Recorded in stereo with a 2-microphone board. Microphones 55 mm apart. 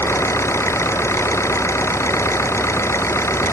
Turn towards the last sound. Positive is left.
turn(degrees=50)  # may be behind; listen again after turning